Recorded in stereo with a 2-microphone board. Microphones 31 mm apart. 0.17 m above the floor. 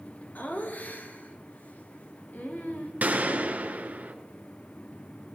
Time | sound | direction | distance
0.3 | laughter | 60° left (ahead or behind) | 2.5 m
3.0 | a gunshot | 55° right (ahead or behind) | 1.3 m